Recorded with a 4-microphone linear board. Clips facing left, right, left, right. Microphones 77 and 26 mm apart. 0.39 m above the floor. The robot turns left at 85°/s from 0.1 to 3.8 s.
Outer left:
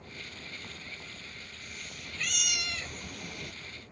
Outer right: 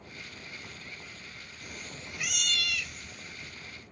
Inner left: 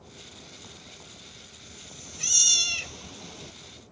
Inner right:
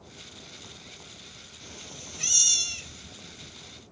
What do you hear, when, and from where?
1.6 s a cat meowing: 115° right; by 3.5 s 80° left